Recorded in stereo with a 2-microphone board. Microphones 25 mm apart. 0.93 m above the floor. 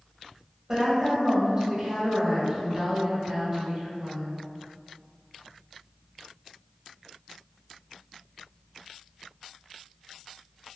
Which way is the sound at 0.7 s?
30° right (ahead or behind).